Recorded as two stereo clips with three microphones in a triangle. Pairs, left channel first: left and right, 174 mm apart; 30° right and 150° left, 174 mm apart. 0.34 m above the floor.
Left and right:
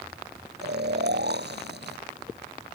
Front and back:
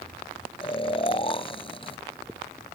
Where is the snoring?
90° right.